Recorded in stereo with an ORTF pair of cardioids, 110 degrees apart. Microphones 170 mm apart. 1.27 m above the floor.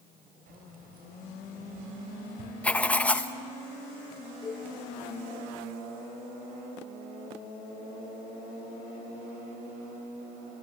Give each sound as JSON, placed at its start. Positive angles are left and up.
{"t": 0.5, "sound": "keys jangling", "azimuth_deg": -60, "distance_m": 4.0}
{"t": 2.6, "sound": "writing", "azimuth_deg": 10, "distance_m": 0.9}
{"t": 4.4, "sound": "a cowbell", "azimuth_deg": 30, "distance_m": 7.0}